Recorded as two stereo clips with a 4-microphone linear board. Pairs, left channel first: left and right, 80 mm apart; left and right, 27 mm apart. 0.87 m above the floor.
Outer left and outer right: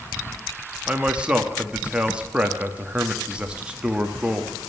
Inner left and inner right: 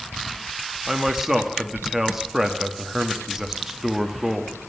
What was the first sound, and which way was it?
A man speaking, 15° right (ahead or behind).